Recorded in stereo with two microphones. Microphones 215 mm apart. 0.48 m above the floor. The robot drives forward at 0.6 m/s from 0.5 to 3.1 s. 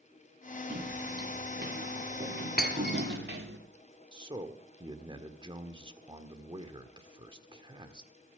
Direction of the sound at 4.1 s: 25° right (ahead or behind).